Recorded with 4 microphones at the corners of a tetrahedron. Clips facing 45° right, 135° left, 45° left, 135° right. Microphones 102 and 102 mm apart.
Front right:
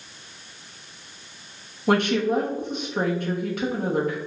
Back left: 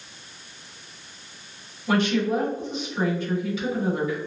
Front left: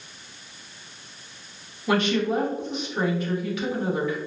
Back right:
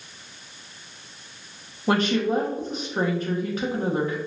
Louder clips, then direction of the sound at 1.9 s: Front right 1 dB, back right 1 dB; 85° right.